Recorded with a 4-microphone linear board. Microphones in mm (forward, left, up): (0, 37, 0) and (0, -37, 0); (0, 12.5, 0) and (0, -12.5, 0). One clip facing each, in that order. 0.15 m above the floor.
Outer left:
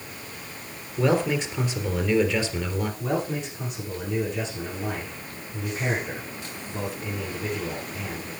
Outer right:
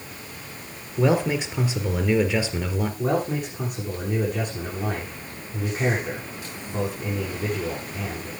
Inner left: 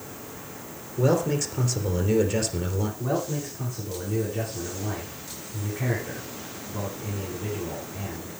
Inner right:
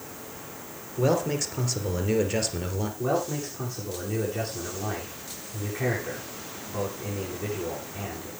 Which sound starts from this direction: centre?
A man speaking, at 1.0 s.